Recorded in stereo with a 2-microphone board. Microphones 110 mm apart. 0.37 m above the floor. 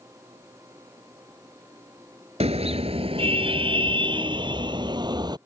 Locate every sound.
2.4 s a car horn: 70° right (ahead or behind); by 5.4 s 40° right (ahead or behind)